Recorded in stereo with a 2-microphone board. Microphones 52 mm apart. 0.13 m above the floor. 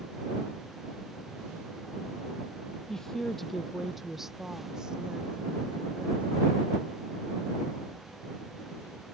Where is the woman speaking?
10° left (ahead or behind); by 6.6 s 20° right (ahead or behind).